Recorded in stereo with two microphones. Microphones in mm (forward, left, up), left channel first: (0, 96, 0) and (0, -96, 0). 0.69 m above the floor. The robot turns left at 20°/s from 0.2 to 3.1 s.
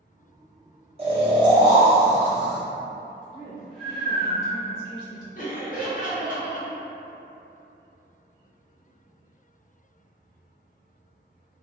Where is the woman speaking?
25° right (ahead or behind), 1.4 m.